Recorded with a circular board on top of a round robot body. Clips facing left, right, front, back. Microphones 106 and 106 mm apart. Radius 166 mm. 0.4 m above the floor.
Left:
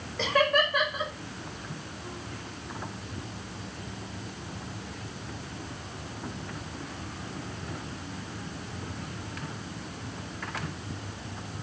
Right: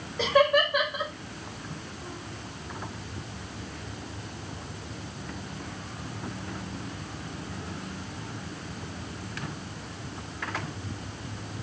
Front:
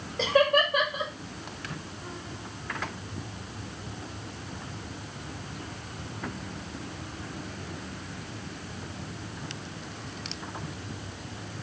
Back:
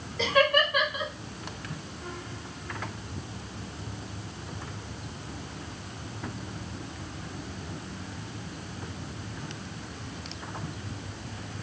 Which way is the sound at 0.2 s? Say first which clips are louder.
Right 3 dB, front 1 dB; 20° right.